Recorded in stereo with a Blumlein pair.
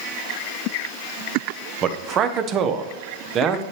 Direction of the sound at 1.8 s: 30° right.